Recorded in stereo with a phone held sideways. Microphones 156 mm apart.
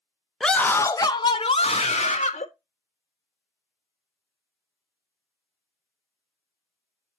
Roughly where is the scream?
Centre.